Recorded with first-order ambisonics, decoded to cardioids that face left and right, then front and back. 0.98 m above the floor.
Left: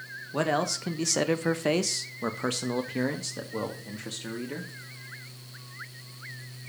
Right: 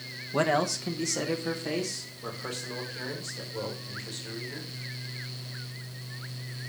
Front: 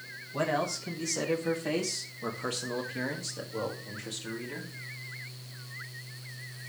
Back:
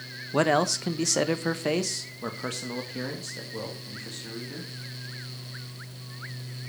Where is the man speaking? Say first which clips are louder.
Right 1 dB, back 7 dB; 170° right, 0.8 m; by 4.7 s 90° left, 2 m.